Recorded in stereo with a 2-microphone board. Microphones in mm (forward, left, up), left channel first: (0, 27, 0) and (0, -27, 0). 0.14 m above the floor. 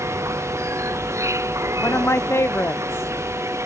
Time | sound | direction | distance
0.0 | an insect | 70° right (ahead or behind) | ?
1.8 | a woman speaking | 55° left (ahead or behind) | ?